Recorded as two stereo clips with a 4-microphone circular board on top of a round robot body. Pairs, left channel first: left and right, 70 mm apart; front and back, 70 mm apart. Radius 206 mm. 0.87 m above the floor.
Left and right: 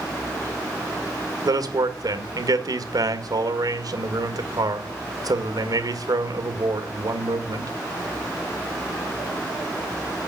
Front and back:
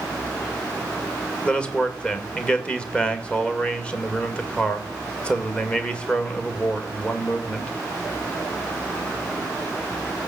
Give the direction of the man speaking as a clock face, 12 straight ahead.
2 o'clock.